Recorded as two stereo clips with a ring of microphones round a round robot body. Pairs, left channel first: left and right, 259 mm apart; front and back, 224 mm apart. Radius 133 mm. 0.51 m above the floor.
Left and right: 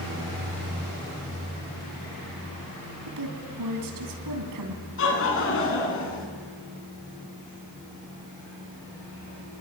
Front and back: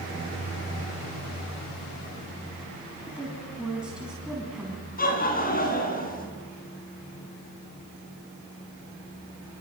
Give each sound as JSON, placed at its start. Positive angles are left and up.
{"t": 3.1, "sound": "a woman speaking", "azimuth_deg": -95, "distance_m": 4.0}
{"t": 5.0, "sound": "laughter", "azimuth_deg": 50, "distance_m": 5.0}